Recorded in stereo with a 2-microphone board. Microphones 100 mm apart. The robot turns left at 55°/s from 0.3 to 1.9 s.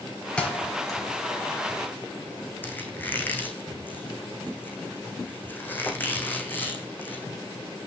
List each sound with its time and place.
0.4 s a thud: 10° left (ahead or behind), 4.5 m; by 1.0 s 45° left (ahead or behind), 4.5 m
2.6 s a squeak: 20° left (ahead or behind), 3 m